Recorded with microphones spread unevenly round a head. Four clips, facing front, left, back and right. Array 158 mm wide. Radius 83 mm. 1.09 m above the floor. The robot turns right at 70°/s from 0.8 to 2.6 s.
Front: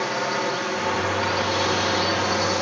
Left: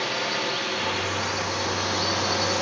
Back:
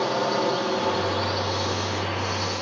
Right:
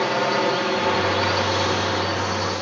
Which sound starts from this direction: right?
A drone, at 0.0 s.